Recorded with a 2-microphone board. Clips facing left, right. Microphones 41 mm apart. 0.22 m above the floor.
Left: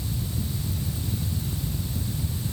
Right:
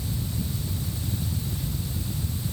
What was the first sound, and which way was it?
Only background noise.